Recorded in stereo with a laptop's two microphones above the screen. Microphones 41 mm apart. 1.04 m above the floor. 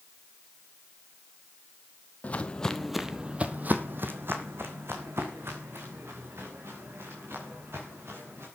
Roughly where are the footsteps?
Left.